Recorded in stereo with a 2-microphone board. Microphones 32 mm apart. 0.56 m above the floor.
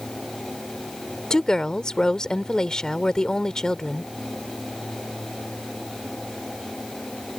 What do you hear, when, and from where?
1.3 s a woman speaking: 20° left (ahead or behind)